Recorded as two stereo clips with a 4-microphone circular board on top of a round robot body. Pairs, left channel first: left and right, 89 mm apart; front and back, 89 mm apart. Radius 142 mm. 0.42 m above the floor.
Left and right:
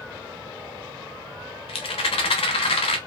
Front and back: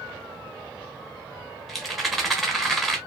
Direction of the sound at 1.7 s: 90° left.